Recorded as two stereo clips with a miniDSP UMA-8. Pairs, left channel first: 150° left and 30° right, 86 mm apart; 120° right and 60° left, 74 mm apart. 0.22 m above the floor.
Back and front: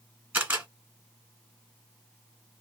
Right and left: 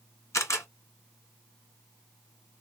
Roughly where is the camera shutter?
Right.